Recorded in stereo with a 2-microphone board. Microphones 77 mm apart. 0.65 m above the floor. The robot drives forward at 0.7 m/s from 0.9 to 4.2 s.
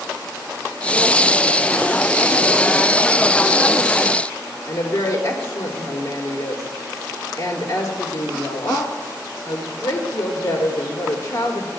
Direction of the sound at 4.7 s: 60° left (ahead or behind).